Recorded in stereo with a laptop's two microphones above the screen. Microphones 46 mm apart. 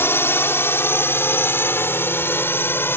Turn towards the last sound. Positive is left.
turn(degrees=55)  # may be behind; listen again after turning